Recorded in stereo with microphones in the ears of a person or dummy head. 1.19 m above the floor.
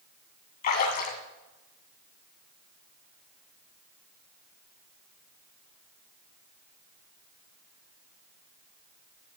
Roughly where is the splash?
Left.